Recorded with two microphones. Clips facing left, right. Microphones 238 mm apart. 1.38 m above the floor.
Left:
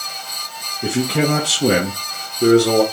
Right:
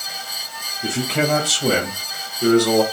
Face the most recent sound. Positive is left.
turn(degrees=30)  # may be behind; listen again after turning